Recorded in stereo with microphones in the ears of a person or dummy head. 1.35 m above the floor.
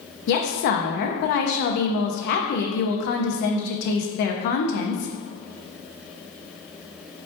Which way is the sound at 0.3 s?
55° left (ahead or behind).